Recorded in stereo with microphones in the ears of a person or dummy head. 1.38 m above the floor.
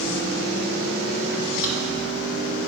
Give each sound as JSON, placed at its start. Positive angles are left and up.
{"t": 1.6, "sound": "a drawer", "side_deg": -5, "distance_m": 2.5}